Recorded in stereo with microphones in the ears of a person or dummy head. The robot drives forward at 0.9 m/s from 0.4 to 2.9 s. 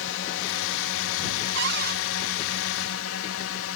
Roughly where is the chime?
No chime in this recording.